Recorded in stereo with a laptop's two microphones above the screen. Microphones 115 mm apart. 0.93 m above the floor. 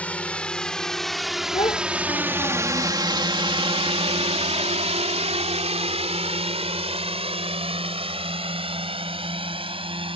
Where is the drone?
10° left (ahead or behind); by 10.2 s 50° right (ahead or behind).